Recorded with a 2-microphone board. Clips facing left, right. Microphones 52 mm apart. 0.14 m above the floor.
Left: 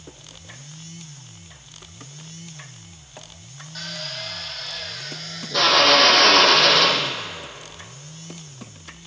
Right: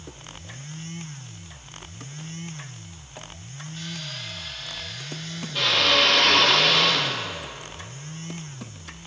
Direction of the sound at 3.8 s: 80° left.